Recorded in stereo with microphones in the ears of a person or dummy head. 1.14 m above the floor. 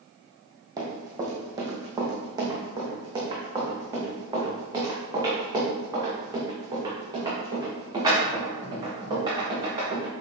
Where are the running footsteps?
20° right (ahead or behind), 2.5 m.